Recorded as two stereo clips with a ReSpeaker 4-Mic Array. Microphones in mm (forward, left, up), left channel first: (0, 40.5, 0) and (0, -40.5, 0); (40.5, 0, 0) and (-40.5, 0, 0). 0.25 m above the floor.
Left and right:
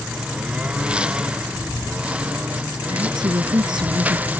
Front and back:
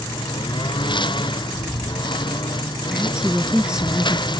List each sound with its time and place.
0.0 s a lawn mower: 10° right; by 4.4 s 20° right
2.9 s a woman speaking: 100° right